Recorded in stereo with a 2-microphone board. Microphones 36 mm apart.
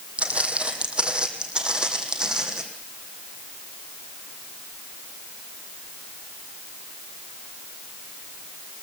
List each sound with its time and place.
0.2 s footsteps: 35° right (ahead or behind), 2 m; by 2.6 s 20° right (ahead or behind), 3 m